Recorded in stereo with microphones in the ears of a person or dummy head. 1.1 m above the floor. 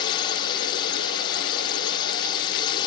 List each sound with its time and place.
0.0 s a drone: 25° left (ahead or behind)